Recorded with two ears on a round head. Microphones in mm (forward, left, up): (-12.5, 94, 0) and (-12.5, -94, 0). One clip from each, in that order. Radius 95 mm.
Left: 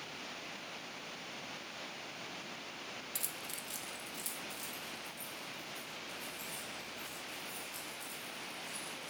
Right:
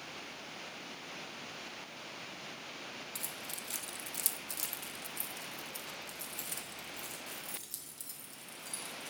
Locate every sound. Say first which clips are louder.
3.1 s keys jangling: even; 10° left (ahead or behind), 0.6 m; by 9.1 s 65° right (ahead or behind), 3 m